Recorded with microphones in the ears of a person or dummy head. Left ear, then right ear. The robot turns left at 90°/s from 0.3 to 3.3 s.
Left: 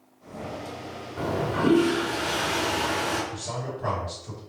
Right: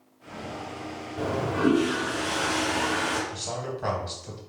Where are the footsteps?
No footsteps in this recording.